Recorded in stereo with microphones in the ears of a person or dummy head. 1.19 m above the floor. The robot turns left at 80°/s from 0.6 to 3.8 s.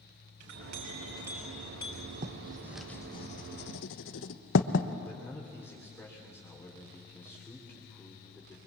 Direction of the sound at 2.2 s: 45° right (ahead or behind).